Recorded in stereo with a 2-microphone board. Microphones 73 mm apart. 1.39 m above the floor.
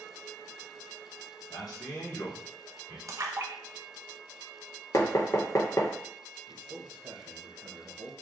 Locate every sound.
1.5 s a man speaking: 75° left (ahead or behind), 1.8 m; by 3.0 s 80° left, 2.5 m
3.1 s a splash: 45° right (ahead or behind), 0.7 m
4.9 s knocking: 50° left (ahead or behind), 0.8 m
6.5 s a man speaking: 80° right, 1.3 m